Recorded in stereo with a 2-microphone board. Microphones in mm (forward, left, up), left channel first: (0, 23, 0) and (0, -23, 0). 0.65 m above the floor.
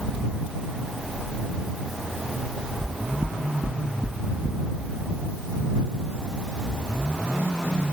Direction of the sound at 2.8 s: 20° right (ahead or behind).